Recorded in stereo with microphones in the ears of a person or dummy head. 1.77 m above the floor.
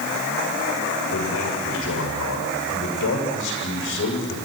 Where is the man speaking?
75° left (ahead or behind), 8 m; by 4.4 s 60° left (ahead or behind), 7.5 m.